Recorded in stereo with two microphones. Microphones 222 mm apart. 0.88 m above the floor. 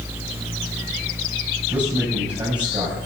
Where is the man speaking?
25° right (ahead or behind), 6 m.